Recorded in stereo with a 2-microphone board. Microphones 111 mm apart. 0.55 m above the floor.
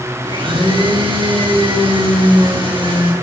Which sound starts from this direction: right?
A blender, at 0.2 s.